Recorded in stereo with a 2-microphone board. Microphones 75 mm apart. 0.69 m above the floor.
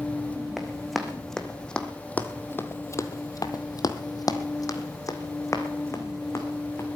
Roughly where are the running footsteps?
Centre.